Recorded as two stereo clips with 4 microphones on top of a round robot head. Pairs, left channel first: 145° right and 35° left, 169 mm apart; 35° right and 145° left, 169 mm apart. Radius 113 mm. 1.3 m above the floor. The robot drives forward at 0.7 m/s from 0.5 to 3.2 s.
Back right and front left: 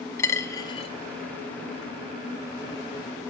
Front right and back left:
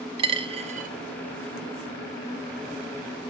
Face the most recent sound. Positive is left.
turn(degrees=175)